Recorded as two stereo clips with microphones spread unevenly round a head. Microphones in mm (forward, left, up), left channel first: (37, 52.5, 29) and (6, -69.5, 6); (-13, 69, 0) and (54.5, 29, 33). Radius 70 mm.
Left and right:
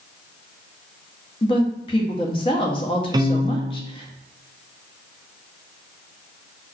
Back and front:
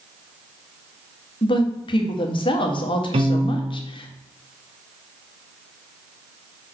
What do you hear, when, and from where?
1.4 s a woman speaking: 130° left, 1.3 m
3.1 s a piano: 45° right, 0.8 m